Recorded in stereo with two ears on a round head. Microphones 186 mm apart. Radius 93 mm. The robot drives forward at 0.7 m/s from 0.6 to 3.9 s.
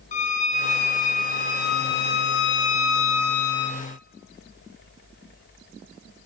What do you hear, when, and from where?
0.1 s a violin: 35° left (ahead or behind), 3 m; by 3.8 s 85° left, 1.7 m